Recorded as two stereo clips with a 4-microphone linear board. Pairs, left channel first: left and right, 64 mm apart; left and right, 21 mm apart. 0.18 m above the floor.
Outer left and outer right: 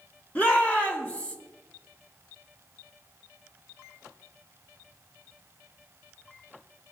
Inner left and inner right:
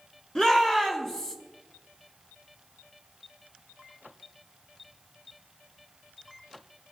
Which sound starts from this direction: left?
A shout, at 0.3 s.